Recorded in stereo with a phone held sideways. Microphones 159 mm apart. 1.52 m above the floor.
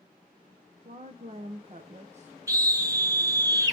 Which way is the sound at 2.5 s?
20° right (ahead or behind).